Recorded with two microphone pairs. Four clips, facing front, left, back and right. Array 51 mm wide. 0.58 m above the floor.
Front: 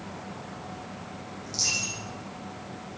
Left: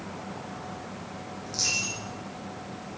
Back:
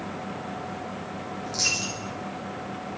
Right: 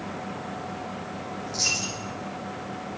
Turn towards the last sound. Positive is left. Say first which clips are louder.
# right 1 dB, back 3 dB
turn(degrees=175)